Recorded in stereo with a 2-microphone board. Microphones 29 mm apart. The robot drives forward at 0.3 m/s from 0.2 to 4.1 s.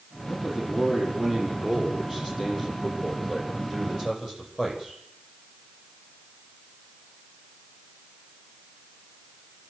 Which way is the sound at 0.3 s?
10° right (ahead or behind).